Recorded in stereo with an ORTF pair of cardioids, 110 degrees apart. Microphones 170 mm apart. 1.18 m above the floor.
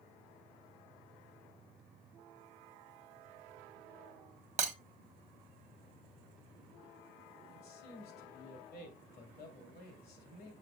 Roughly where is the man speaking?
Ahead left.